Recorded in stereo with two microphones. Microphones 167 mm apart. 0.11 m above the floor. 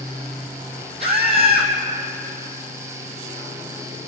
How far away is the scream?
About 4 m.